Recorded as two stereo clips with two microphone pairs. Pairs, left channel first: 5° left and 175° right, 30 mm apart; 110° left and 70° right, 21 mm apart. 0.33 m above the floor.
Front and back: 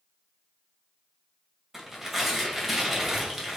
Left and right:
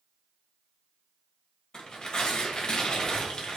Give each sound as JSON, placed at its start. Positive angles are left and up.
{"t": 1.7, "sound": "tearing paper", "azimuth_deg": 100, "distance_m": 1.5}